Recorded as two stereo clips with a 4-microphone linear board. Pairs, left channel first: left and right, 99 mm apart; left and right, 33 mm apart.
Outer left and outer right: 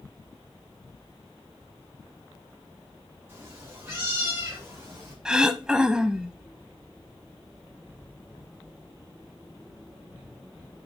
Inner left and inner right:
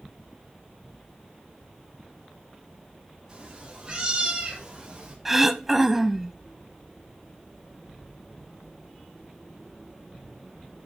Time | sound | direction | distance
3.3 | a cat meowing | 25° right (ahead or behind) | 5 m
5.2 | throat clearing | 5° right (ahead or behind) | 0.7 m